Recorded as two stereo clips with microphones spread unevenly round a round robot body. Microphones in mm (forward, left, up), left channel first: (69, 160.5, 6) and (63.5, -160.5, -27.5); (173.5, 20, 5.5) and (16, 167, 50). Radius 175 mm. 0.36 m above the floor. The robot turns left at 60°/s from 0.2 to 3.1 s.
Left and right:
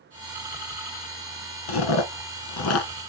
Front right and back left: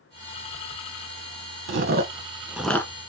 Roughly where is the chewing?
Left.